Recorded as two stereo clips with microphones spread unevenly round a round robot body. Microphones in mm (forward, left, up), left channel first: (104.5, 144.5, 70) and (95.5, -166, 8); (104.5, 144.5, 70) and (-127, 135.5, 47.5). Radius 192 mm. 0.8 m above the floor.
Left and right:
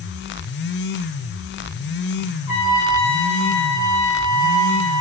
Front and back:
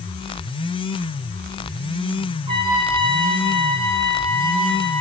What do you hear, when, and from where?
2.5 s a trumpet: 115° left, 3.5 m